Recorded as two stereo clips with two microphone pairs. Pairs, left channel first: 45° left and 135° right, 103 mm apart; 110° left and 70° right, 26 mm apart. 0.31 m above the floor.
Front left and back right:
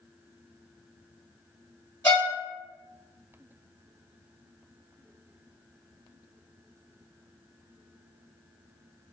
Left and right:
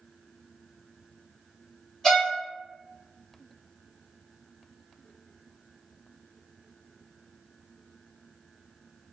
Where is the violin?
45° left, 1.6 m.